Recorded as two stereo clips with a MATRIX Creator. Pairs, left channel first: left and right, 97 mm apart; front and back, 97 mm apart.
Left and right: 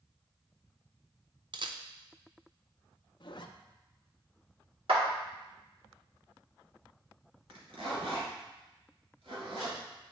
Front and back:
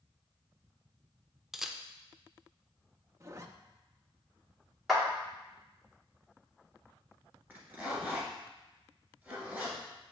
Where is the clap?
90° right, 1.7 m.